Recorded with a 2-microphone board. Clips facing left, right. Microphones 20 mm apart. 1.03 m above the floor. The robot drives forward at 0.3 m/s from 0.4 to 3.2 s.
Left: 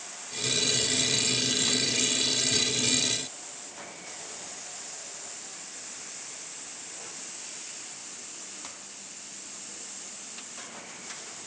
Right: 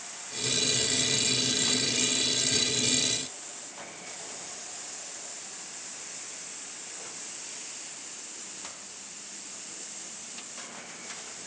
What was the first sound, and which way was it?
Only background noise.